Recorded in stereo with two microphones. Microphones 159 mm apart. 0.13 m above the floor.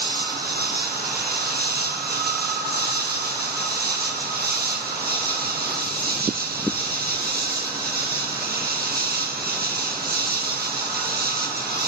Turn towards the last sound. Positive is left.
turn(degrees=-75)  # may be behind; listen again after turning